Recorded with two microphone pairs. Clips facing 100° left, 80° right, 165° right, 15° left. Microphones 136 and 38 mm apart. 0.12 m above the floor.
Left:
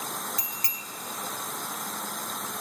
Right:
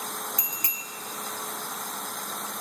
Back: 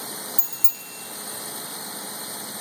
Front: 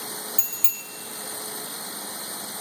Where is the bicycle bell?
15° right, 2 m.